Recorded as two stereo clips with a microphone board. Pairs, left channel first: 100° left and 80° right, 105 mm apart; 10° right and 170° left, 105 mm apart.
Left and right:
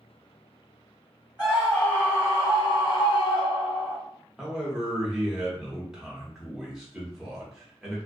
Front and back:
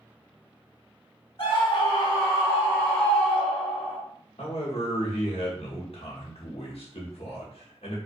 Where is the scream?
5° left, 0.8 m; by 4.0 s 85° left, 1.3 m.